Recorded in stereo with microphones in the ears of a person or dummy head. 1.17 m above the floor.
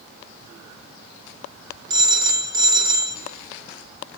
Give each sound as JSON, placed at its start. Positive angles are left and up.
{"t": 1.9, "sound": "a phone ringing", "side_deg": -25, "distance_m": 1.0}